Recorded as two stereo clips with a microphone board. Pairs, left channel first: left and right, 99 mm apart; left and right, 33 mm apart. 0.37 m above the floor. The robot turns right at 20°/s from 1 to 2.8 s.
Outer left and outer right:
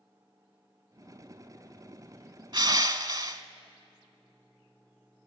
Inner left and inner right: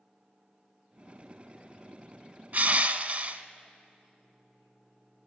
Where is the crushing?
50° right (ahead or behind), 0.9 m; by 3.4 s 45° right (ahead or behind), 0.9 m.